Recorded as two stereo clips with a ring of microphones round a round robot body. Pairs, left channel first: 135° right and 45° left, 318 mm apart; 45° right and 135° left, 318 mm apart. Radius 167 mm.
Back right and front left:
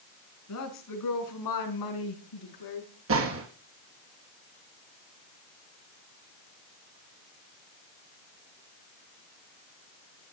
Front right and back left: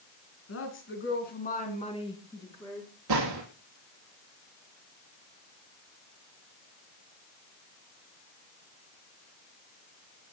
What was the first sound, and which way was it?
A woman speaking, 95° right.